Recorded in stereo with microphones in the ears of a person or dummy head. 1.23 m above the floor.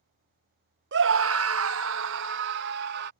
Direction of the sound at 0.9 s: 60° right (ahead or behind).